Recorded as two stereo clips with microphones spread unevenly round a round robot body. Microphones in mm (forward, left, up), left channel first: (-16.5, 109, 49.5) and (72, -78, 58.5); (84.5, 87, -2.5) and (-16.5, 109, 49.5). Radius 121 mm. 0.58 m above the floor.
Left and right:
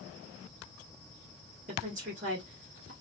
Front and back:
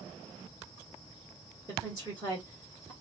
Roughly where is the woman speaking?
Behind right.